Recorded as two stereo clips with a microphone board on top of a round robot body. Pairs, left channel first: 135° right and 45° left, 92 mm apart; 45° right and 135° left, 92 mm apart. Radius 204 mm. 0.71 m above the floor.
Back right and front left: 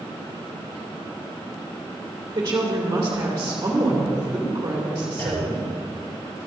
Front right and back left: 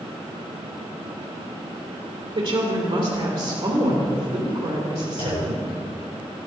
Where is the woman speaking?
105° left, 2.5 m.